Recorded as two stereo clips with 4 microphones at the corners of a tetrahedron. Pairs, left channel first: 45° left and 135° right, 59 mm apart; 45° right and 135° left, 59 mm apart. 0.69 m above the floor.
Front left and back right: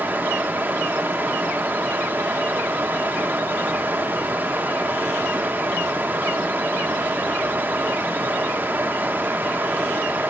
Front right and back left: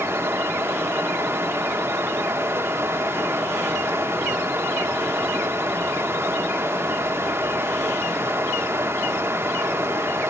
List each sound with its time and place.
0.0 s running water: 170° left, 1.1 m